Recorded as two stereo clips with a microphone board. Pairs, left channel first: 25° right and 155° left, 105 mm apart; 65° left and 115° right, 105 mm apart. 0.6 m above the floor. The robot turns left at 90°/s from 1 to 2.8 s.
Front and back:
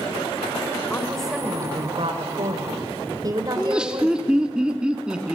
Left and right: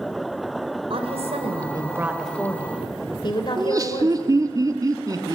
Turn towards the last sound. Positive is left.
turn(degrees=-125)